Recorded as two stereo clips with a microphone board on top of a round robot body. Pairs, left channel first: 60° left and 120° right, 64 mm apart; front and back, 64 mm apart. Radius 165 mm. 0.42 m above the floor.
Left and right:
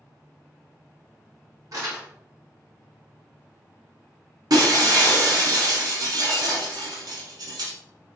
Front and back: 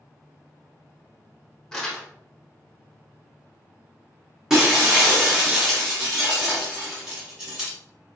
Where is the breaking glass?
100° right, 0.9 m.